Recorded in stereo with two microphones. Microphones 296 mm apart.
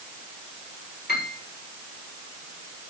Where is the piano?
30° left (ahead or behind), 6.5 m.